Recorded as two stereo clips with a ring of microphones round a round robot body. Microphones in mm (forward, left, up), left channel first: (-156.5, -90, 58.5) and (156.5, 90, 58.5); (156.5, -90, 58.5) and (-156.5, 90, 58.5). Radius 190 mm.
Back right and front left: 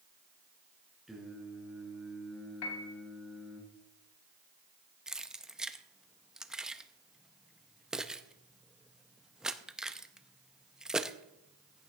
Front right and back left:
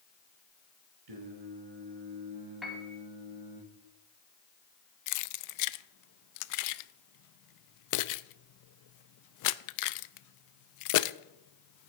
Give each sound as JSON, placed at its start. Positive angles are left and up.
{"t": 1.1, "sound": "singing", "azimuth_deg": 120, "distance_m": 3.0}
{"t": 2.6, "sound": "a piano", "azimuth_deg": -120, "distance_m": 1.6}
{"t": 5.1, "sound": "keys jangling", "azimuth_deg": -60, "distance_m": 0.5}